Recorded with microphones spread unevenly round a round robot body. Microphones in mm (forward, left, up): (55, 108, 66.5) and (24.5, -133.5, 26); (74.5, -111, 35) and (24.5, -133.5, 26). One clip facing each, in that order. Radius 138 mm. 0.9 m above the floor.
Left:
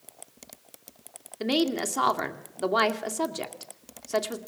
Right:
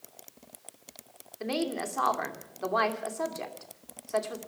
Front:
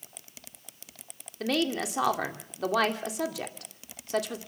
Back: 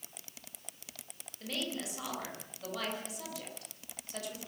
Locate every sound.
1.4 s a woman speaking: 40° left, 2.5 m